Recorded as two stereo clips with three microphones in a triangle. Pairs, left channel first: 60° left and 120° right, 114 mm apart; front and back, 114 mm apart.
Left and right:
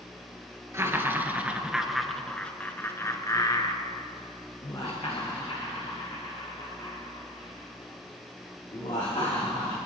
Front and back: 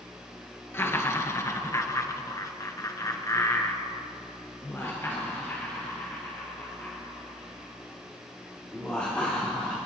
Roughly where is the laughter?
Ahead right.